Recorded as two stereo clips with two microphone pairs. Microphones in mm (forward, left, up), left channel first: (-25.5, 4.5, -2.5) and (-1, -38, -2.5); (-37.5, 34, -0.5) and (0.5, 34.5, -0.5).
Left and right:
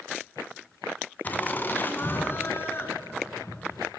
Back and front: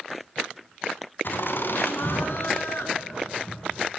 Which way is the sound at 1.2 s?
170° left.